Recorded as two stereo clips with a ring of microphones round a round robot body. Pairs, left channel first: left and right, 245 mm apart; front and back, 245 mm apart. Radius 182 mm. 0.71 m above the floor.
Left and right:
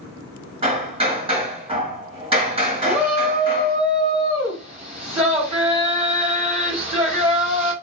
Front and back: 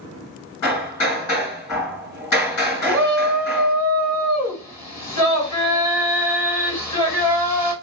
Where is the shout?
25° right, 2.5 m.